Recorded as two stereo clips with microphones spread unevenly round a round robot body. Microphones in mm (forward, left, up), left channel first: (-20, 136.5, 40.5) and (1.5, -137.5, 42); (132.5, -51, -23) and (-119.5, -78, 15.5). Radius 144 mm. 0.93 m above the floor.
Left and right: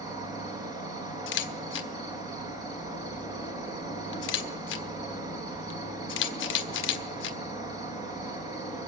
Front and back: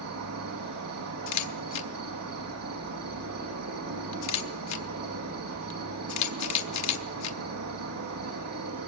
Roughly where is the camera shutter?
Ahead left.